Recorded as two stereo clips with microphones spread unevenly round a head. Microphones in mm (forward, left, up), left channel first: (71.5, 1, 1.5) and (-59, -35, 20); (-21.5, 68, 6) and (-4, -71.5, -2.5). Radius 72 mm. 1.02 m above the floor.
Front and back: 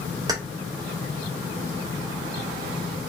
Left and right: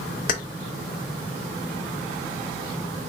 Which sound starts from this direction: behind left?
Keys jangling, at 0.3 s.